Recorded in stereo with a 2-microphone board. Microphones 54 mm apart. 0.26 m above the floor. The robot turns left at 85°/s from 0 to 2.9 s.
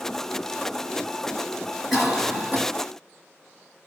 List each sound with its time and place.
1.9 s a cough: straight ahead, 1.9 m; by 2.6 s 60° right, 1.9 m